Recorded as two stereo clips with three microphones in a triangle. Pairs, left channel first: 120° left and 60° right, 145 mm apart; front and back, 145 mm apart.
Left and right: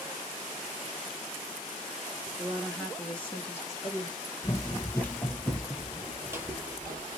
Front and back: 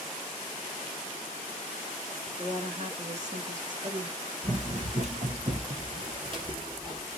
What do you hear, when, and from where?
2.4 s a woman speaking: 140° right, 2 m; by 4.2 s 165° left, 1.8 m
4.4 s running footsteps: straight behind, 1.2 m; by 7.2 s 120° right, 1.8 m